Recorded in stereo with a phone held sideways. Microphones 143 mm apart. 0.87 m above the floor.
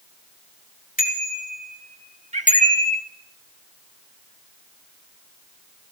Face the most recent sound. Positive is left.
turn(degrees=-55)  # may be behind; listen again after turning